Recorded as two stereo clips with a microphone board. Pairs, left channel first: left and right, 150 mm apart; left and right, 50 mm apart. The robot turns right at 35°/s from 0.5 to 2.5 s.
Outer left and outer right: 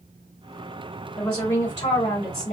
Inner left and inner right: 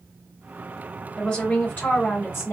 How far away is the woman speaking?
About 1.4 m.